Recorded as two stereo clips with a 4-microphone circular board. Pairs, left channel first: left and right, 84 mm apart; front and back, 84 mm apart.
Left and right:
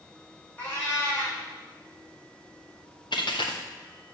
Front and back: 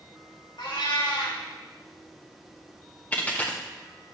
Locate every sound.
0.6 s a cat meowing: 25° left, 4 m
3.1 s a dropped coin: 70° left, 1.4 m